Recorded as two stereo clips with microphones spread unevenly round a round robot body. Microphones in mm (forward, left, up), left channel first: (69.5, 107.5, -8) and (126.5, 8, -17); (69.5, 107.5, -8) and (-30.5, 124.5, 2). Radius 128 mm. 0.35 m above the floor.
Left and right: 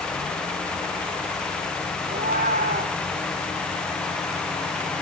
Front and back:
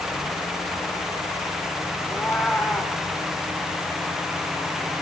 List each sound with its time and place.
2.1 s a cat meowing: 95° right, 1.5 m